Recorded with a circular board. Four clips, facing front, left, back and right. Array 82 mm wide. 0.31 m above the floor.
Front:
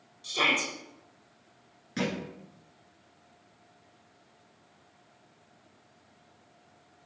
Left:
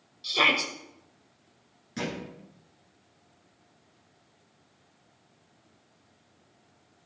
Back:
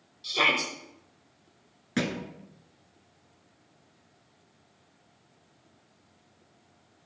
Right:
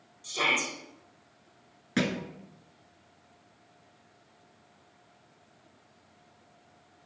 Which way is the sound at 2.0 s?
125° right.